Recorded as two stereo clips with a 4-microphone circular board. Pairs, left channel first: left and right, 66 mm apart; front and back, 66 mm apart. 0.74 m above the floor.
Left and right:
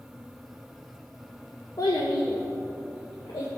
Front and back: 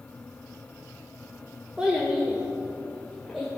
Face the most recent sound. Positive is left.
turn(degrees=90)